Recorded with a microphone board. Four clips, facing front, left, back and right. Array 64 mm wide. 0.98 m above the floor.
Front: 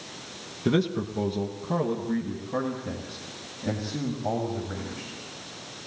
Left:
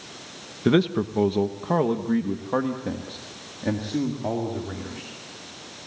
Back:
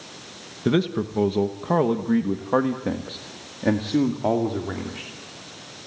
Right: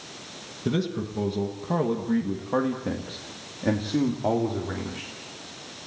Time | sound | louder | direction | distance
0.7 | a man speaking | left 7 dB, back 3 dB | 105° left | 1.1 m